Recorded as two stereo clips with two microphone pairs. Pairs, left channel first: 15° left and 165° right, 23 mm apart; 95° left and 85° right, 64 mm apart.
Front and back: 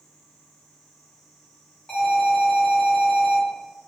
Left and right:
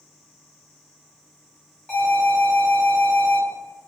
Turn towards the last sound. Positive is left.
turn(degrees=35)